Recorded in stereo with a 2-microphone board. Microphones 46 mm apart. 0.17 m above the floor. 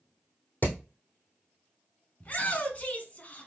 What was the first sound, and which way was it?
Hammering, 40° left (ahead or behind).